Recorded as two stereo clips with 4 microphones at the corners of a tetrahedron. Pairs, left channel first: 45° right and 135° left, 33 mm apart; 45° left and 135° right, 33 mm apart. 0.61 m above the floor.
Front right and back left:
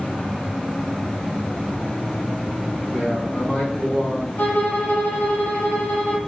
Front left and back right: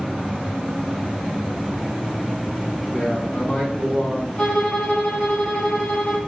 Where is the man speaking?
10° right, 4 m; by 4.3 s 5° left, 3.5 m.